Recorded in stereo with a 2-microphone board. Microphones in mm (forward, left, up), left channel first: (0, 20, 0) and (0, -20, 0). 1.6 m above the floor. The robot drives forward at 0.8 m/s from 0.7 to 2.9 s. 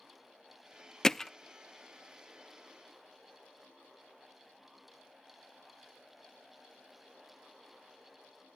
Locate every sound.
1.0 s hammering: 15° left (ahead or behind); by 1.3 s 10° left (ahead or behind)